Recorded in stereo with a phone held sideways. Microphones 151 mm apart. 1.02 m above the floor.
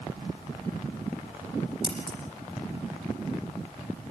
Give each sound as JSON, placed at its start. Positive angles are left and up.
{"t": 1.8, "sound": "scissors", "side_deg": -30, "distance_m": 8.0}